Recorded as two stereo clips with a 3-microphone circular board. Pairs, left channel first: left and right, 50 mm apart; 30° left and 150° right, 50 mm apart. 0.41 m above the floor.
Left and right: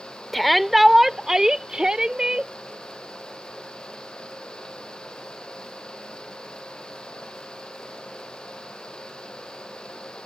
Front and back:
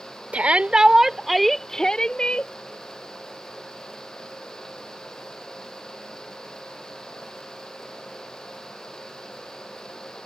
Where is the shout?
175° left; by 2.5 s 25° right.